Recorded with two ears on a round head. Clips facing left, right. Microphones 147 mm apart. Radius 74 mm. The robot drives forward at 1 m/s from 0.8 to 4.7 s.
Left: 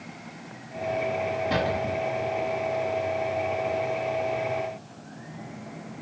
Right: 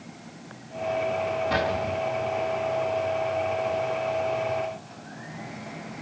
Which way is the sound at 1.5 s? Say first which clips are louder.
Even; 25° left (ahead or behind).